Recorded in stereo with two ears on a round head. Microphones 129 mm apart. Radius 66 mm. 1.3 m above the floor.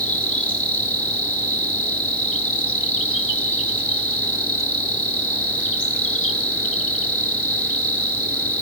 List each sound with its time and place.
0.0 s an insect: 10° left (ahead or behind), 1.4 m